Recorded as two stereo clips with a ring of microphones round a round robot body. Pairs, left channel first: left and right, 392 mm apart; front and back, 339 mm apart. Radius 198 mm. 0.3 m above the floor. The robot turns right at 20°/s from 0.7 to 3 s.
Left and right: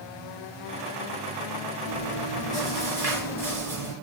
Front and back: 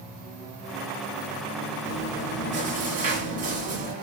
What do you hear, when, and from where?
1.9 s chewing: 140° left, 1.3 m; by 3.9 s 165° left, 1.3 m